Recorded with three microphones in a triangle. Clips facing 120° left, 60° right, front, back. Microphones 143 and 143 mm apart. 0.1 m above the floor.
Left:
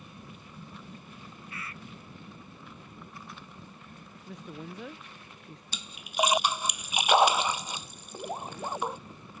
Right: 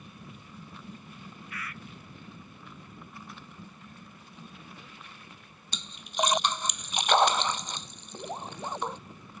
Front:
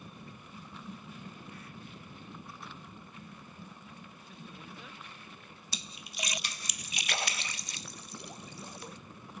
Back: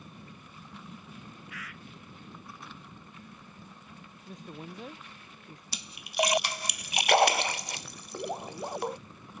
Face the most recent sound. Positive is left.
turn(degrees=-160)